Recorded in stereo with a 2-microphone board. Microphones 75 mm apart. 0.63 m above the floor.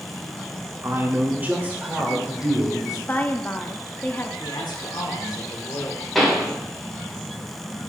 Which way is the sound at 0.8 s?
35° right (ahead or behind).